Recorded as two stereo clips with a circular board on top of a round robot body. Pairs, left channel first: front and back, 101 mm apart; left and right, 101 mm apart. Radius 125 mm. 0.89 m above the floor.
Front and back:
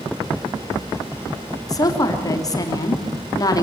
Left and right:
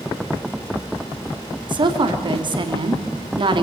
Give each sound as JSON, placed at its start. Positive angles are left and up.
{"t": 1.7, "sound": "a woman speaking", "azimuth_deg": -55, "distance_m": 3.0}